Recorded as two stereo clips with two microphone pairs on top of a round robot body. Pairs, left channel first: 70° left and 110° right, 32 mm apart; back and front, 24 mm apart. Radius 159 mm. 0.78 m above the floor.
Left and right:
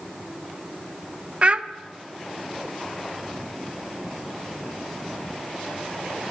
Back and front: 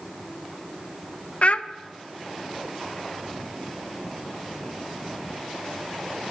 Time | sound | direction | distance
1.4 | a child speaking | 160° right | 0.6 m